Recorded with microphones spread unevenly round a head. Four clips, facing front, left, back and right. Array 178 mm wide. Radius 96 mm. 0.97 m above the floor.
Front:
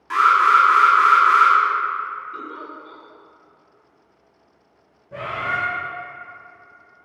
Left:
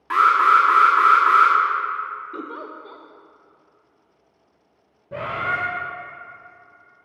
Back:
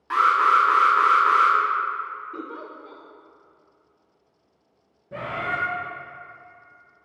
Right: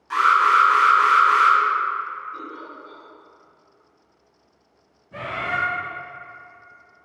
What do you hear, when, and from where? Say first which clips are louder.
0.1 s an alarm: left 1 dB, front 3 dB; 90° left, 1.6 m
2.3 s a giggle: left 3 dB, front 2 dB; 100° left, 0.7 m
5.1 s a bird: left 2 dB, front 3 dB; 105° left, 1.5 m